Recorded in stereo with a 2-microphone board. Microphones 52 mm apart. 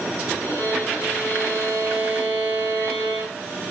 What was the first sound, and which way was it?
A violin, 35° left (ahead or behind).